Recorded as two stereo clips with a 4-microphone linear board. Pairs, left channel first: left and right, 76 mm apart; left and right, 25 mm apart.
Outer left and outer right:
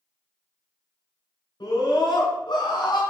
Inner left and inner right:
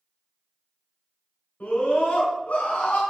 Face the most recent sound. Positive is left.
turn(degrees=60)  # may be behind; listen again after turning